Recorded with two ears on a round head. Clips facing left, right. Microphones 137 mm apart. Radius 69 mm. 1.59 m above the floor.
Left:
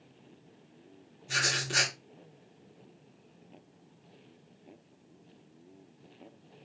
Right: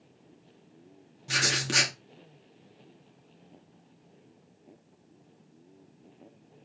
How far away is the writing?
About 2.5 m.